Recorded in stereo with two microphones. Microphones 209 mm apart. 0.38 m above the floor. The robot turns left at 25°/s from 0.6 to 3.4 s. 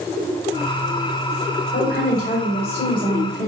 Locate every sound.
1.7 s a woman speaking: 95° left, 1.3 m; by 3.5 s 55° left, 1.3 m